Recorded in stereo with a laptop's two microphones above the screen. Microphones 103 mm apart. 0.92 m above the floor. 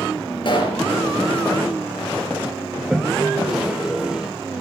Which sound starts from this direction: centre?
A toilet flushing, at 2.8 s.